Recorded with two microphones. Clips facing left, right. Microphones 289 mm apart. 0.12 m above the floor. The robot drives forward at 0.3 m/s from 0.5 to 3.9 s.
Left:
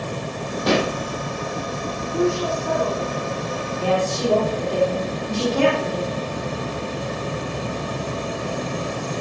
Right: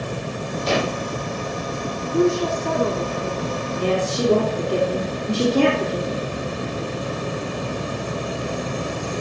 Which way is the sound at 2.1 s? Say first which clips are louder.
Right 3 dB; 40° right (ahead or behind).